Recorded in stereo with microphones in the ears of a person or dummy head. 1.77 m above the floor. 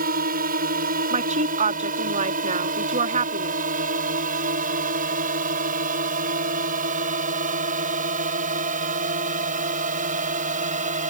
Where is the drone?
50° right (ahead or behind); by 11.1 s 40° right (ahead or behind).